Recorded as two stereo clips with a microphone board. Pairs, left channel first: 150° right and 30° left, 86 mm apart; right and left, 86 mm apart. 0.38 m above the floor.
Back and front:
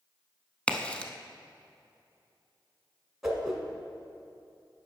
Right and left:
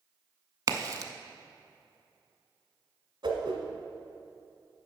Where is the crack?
135° left, 0.5 m.